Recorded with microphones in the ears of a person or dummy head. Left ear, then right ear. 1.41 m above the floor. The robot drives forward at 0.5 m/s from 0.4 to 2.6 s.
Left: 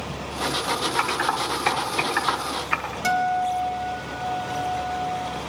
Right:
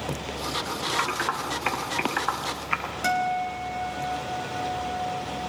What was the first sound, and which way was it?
Typing on a keyboard, centre (ahead or behind).